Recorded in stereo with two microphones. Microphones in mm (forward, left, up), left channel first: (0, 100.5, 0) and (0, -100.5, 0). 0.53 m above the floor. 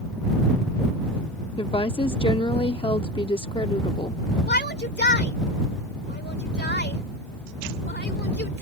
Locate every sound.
1.6 s a woman speaking: 25° left (ahead or behind)
4.5 s a shout: 60° left (ahead or behind)